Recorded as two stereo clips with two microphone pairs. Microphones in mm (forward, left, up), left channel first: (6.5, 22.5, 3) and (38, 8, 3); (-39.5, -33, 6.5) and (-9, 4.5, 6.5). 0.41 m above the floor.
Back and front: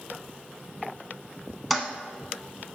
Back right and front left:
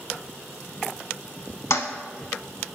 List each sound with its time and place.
1.7 s a toilet flushing: 115° right, 0.7 m